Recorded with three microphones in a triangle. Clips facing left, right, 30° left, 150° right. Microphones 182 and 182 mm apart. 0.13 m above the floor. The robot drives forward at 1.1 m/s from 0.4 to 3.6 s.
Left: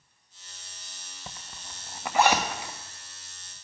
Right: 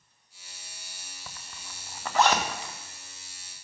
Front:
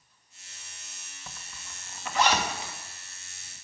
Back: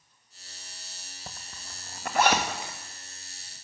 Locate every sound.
1.3 s a zipper: 155° left, 0.9 m; by 2.7 s 170° left, 2.5 m